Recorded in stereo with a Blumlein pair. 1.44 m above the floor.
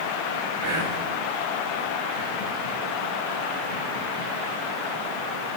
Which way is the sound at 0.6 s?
65° right.